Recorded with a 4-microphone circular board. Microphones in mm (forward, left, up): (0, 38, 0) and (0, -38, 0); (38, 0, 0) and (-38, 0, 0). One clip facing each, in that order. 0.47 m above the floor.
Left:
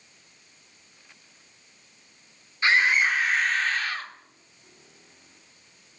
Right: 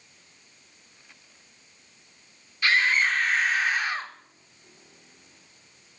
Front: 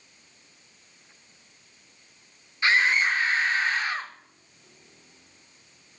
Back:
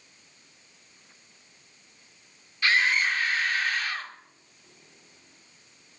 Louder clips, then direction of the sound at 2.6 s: Left 1 dB, front 2 dB; 50° left.